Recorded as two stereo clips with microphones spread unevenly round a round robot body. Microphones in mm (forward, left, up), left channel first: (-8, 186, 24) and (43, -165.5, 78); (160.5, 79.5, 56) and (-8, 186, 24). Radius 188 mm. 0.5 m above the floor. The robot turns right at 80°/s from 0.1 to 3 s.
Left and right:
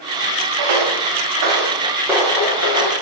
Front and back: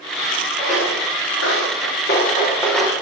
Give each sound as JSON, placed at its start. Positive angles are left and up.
{"t": 0.6, "sound": "footsteps", "azimuth_deg": -115, "distance_m": 3.5}